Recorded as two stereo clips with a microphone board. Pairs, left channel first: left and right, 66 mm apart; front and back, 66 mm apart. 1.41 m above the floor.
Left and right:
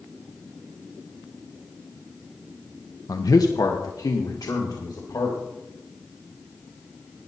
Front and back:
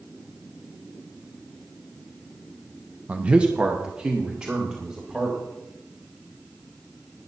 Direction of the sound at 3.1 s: 115° left.